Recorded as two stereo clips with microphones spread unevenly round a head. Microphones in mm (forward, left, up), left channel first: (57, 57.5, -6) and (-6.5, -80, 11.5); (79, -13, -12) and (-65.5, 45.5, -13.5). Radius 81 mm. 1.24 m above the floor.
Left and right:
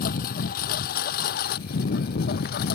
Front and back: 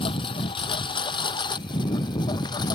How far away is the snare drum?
No snare drum in this recording.